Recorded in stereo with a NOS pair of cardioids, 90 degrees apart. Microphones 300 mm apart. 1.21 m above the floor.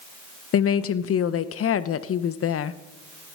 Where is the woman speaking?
45° left, 0.7 m.